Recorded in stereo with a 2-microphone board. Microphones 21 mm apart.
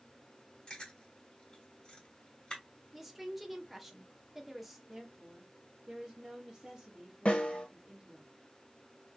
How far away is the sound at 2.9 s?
About 0.8 m.